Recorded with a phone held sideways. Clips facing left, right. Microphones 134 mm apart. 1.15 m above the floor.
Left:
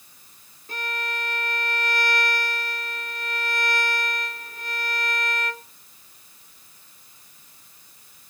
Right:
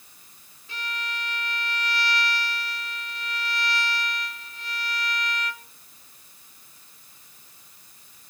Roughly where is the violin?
Left.